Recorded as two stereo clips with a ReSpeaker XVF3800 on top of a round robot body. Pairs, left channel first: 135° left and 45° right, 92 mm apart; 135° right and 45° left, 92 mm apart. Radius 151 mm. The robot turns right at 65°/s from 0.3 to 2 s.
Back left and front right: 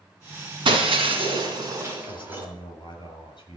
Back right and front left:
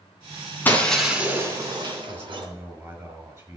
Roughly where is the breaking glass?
Ahead right.